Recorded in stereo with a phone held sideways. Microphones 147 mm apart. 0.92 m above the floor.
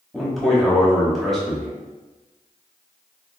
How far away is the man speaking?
About 1.1 m.